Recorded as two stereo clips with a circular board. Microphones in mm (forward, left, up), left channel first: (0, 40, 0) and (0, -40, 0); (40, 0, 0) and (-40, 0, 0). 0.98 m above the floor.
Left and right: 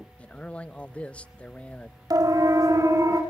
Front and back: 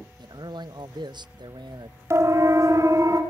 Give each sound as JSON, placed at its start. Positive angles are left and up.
{"t": 0.2, "sound": "a man speaking", "azimuth_deg": 165, "distance_m": 0.7}
{"t": 2.1, "sound": "a siren", "azimuth_deg": -130, "distance_m": 2.5}